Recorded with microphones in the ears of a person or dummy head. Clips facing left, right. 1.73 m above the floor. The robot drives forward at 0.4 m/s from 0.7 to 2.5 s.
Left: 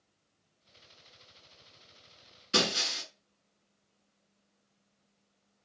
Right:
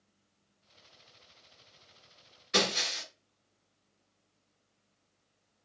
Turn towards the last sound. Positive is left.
turn(degrees=40)  # may be behind; listen again after turning